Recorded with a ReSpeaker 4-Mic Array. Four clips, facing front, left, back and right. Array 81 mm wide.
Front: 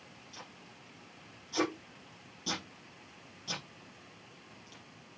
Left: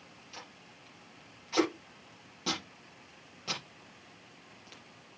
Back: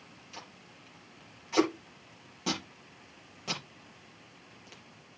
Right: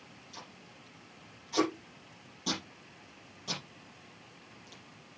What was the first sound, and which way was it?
Tape being pulled, 155° left.